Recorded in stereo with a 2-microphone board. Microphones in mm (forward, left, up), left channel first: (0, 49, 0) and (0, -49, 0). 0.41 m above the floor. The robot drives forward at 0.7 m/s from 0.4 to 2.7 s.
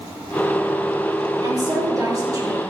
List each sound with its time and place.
1.4 s a woman speaking: 40° right (ahead or behind), 7 m